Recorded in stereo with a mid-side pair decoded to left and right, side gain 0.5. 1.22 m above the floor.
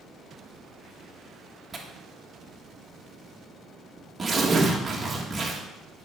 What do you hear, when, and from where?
1.7 s tearing paper: 25° right, 1.6 m